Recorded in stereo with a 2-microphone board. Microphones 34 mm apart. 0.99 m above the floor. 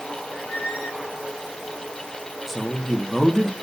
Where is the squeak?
55° left (ahead or behind), 5.5 m.